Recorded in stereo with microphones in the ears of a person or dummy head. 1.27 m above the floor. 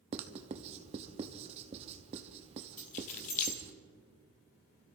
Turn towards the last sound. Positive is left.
turn(degrees=45)  # may be behind; listen again after turning